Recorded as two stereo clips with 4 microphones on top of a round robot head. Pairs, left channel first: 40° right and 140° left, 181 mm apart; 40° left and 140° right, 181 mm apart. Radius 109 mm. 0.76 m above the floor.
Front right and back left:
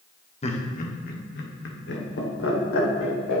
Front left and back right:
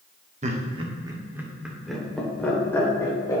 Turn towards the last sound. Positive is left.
turn(degrees=-35)